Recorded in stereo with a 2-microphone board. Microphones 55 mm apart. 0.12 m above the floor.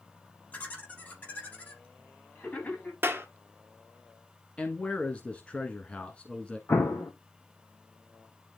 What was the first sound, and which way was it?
Laughter, 35° left (ahead or behind).